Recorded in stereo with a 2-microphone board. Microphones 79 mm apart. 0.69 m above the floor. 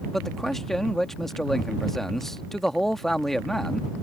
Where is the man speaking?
5° left (ahead or behind).